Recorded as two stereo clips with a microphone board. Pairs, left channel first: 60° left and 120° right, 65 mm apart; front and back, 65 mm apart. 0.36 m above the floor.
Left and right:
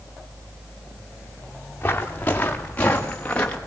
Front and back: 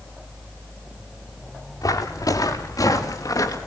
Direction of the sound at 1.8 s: Straight ahead.